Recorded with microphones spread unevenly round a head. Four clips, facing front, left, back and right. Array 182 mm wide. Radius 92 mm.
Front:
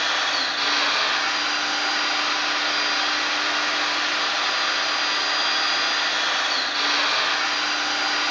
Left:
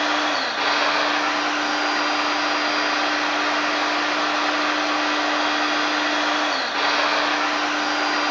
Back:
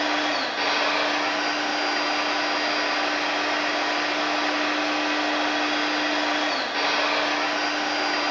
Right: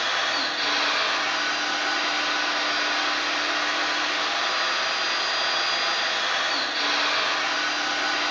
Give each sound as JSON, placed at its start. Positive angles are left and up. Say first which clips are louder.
{"t": 0.0, "sound": "a machine running", "louder": "left 5 dB, back 1 dB", "azimuth_deg": 125, "distance_m": 1.0}